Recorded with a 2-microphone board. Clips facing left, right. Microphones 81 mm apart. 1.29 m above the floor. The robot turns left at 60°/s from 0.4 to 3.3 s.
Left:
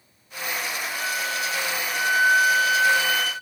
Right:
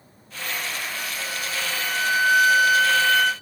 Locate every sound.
0.9 s a flute: 155° left, 1.0 m; by 3.3 s 10° left, 1.0 m